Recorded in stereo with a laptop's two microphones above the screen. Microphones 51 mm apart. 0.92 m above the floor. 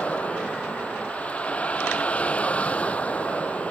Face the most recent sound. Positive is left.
turn(degrees=25)  # may be behind; listen again after turning